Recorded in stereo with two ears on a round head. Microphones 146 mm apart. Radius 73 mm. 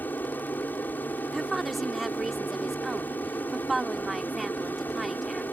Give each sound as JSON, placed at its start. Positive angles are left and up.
{"t": 0.0, "sound": "an aircraft", "side_deg": 10}
{"t": 1.3, "sound": "a woman speaking", "side_deg": 0}